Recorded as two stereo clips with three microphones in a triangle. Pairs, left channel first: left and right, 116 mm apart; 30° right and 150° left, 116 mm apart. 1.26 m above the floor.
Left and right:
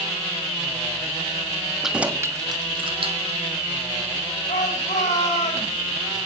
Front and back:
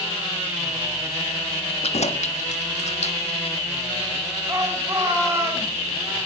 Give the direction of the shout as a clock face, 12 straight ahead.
9 o'clock.